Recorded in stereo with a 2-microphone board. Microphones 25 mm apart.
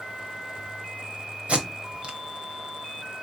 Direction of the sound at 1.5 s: 50° right (ahead or behind).